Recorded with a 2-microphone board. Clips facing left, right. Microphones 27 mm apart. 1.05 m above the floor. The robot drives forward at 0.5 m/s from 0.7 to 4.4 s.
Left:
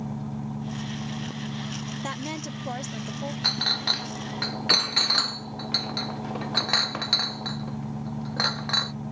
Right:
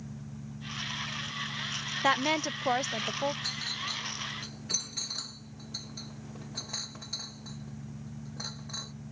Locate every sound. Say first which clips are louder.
0.0 s an engine running: left 11 dB; 80° left; by 9.1 s 75° left (ahead or behind)
2.0 s a woman speaking: right 10 dB; 35° right (ahead or behind); by 3.3 s 25° right (ahead or behind)
3.4 s a clink: left 10 dB; 45° left (ahead or behind); by 8.9 s 75° left (ahead or behind)